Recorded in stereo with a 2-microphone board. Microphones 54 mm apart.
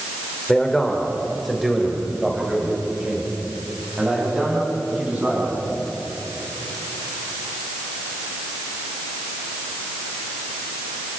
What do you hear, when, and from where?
0.5 s a man speaking: 15° left (ahead or behind), 3.5 m; by 5.7 s 25° right (ahead or behind), 9.5 m